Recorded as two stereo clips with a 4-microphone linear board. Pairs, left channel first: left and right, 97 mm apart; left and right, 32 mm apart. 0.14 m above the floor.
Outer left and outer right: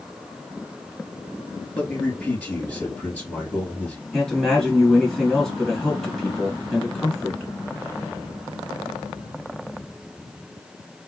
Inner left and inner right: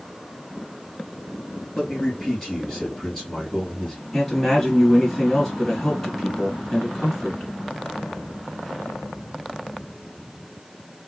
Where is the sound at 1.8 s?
10° left (ahead or behind), 2.5 m.